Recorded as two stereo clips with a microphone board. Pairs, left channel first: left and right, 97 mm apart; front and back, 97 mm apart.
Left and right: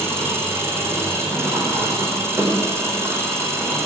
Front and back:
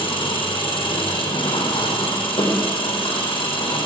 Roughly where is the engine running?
Ahead right.